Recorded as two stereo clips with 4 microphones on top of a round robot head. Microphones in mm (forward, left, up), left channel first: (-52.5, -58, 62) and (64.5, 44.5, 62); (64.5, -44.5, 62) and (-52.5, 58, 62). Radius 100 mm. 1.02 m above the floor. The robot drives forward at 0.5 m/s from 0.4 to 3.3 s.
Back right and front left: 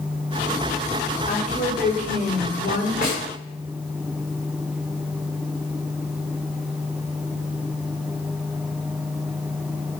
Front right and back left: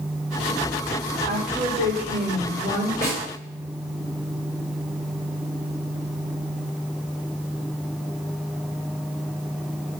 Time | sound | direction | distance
1.3 | a woman speaking | 175° left | 2 m
3.0 | a snare drum | straight behind | 3.5 m